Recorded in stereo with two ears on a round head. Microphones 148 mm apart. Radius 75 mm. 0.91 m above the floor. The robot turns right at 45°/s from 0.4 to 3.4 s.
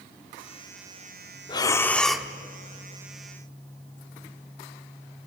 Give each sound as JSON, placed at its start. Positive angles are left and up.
{"t": 1.5, "sound": "breathing", "azimuth_deg": 150, "distance_m": 0.9}